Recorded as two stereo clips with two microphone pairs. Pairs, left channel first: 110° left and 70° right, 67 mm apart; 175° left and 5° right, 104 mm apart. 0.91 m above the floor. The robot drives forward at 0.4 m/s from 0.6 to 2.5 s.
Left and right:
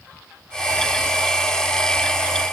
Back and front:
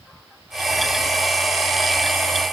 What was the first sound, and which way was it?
Only background noise.